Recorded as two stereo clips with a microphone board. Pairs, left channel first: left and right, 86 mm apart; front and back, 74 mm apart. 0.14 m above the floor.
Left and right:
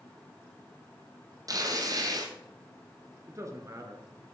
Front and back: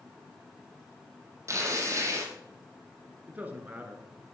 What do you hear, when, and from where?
1.5 s tearing paper: 135° right, 2 m
3.3 s a man speaking: 120° right, 2.5 m